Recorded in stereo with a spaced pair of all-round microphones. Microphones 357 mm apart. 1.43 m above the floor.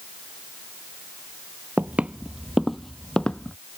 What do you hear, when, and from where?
1.8 s footsteps: 5° right (ahead or behind); by 3.6 s 5° left (ahead or behind)